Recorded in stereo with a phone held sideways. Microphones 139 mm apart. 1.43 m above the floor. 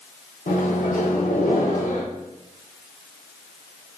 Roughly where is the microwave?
Left.